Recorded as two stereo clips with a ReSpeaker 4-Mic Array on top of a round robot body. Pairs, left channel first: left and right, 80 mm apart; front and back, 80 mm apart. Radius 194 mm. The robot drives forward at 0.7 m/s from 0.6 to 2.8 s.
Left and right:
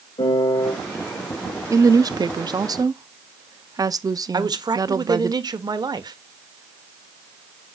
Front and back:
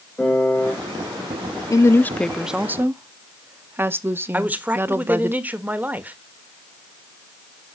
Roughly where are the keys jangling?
No keys jangling in this recording.